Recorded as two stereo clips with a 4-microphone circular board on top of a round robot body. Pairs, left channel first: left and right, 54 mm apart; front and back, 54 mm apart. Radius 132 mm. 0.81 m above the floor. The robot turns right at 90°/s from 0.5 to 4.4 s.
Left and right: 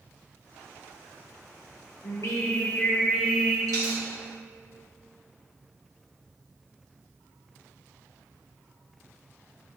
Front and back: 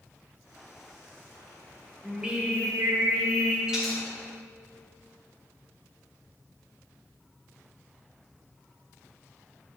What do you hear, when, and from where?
2.0 s singing: 90° left, 1.6 m; by 3.6 s 135° right, 1.6 m
3.7 s a dropped coin: 105° right, 1.9 m; by 4.0 s 75° right, 1.9 m